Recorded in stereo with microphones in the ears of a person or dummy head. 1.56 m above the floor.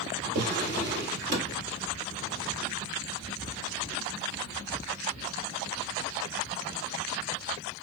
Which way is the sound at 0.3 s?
40° right (ahead or behind).